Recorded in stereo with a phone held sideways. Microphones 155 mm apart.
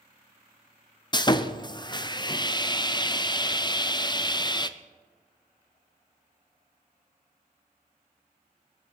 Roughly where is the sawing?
Left.